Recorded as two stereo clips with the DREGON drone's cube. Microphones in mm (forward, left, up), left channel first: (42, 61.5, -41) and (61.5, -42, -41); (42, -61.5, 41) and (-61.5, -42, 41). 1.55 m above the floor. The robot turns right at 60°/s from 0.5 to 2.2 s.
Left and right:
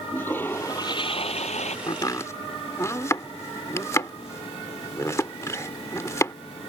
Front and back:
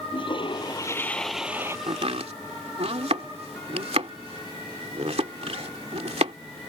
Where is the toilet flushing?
30° left; by 1.8 s 105° left.